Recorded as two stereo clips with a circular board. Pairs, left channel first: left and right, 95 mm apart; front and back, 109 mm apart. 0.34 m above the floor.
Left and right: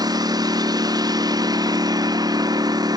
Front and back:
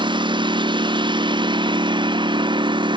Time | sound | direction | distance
0.0 | a lawn mower | 135° right | ?